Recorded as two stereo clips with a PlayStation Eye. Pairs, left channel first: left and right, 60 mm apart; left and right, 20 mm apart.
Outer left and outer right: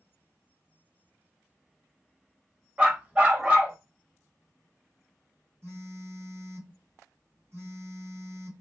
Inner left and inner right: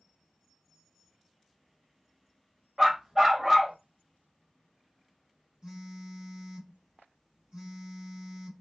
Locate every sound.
2.8 s a dog barking: 25° right (ahead or behind), 0.9 m
5.6 s a phone buzzing: 45° right (ahead or behind), 2.5 m